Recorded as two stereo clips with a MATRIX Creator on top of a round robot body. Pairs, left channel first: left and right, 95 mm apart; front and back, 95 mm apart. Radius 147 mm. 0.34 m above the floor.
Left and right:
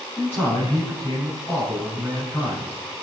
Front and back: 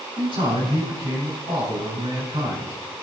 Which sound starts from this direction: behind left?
A man speaking, at 0.2 s.